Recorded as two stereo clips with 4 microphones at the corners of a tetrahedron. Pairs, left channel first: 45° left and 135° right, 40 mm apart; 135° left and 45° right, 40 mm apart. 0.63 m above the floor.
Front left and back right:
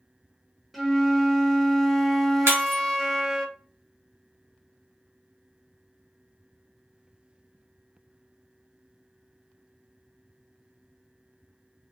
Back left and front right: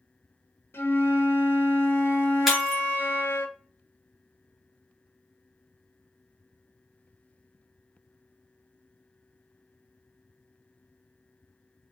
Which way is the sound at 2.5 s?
135° right.